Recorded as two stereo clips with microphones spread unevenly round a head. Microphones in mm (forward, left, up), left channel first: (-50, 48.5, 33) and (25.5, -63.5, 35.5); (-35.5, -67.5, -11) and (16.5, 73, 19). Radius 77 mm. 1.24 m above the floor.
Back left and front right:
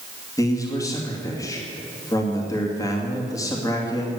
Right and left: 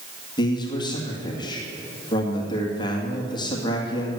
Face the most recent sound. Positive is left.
turn(degrees=-170)